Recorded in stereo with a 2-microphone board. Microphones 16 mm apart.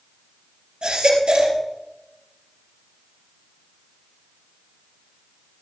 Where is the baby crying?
75° right (ahead or behind), 3.5 m.